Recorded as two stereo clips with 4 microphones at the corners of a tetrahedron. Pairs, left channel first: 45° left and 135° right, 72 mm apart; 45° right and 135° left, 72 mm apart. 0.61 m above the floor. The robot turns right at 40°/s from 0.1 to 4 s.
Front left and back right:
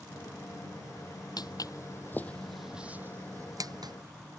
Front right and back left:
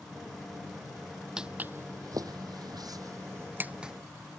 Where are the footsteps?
55° left; by 3.9 s 145° right.